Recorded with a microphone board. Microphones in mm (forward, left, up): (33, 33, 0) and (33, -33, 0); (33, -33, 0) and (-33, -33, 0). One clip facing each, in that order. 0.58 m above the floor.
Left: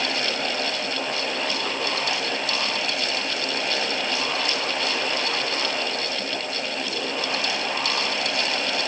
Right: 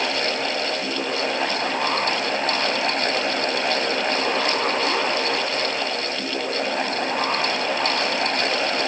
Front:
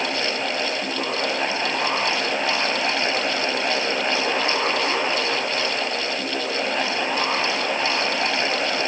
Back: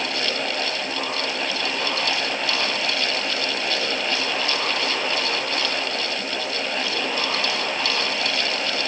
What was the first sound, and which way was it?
Only background noise.